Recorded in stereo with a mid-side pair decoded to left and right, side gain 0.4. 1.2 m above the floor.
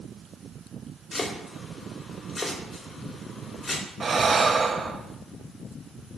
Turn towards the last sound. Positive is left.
turn(degrees=-35)